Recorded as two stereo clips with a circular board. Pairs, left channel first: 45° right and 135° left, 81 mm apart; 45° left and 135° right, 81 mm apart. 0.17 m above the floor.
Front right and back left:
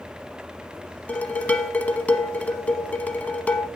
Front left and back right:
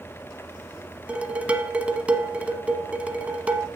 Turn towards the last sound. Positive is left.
turn(degrees=-85)